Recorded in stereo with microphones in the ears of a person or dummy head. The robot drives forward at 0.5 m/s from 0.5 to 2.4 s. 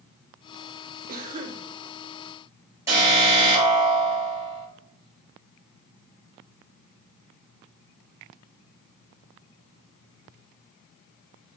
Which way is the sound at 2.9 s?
10° right (ahead or behind).